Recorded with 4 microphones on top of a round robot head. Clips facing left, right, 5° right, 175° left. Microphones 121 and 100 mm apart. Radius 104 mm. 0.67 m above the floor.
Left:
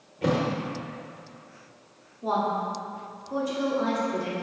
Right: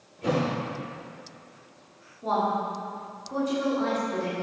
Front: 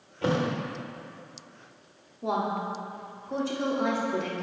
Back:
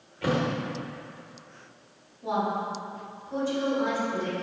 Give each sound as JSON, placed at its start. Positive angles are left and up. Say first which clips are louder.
{"t": 0.2, "sound": "a thud", "louder": "left 1 dB, even", "azimuth_deg": 60, "distance_m": 1.0}
{"t": 2.2, "sound": "a woman speaking", "louder": "even, back 1 dB", "azimuth_deg": 10, "distance_m": 1.4}